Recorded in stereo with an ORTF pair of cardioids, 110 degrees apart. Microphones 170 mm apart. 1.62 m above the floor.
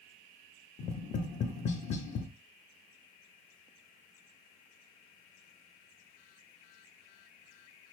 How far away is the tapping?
About 0.7 m.